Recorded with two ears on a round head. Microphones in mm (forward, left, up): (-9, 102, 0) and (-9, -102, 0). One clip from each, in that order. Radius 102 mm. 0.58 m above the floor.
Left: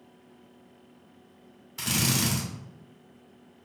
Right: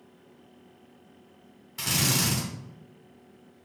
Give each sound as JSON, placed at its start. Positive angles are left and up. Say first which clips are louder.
{"t": 1.8, "sound": "a drill", "louder": "right 1 dB", "side_deg": 5, "distance_m": 1.2}